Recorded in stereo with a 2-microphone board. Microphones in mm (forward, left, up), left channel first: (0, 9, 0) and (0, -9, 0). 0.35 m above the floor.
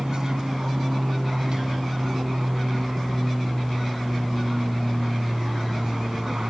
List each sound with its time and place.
0.0 s an aircraft: 40° right (ahead or behind)